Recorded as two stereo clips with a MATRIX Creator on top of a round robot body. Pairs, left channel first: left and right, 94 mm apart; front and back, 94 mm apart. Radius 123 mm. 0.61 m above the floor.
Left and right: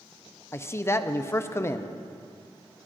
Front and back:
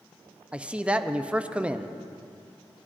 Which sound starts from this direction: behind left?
A man speaking, at 0.5 s.